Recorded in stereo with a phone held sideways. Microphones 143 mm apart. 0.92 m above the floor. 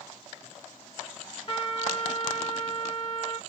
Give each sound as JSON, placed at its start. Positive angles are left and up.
{"t": 1.5, "sound": "a trumpet", "side_deg": 40, "distance_m": 1.9}